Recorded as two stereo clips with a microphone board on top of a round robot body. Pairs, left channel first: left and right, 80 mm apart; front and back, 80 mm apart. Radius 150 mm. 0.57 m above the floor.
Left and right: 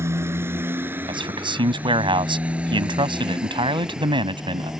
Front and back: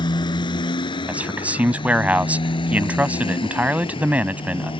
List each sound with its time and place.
0.0 s a motorcycle: 30° right; by 4.8 s 5° right
1.1 s a man speaking: 105° right